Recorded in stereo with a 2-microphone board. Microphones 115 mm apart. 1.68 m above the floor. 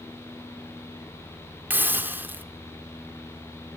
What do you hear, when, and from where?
1.7 s a hiss: 15° right (ahead or behind), 1.4 m